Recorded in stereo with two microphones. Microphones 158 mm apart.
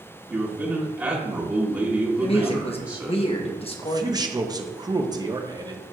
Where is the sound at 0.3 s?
20° right (ahead or behind), 1.5 m.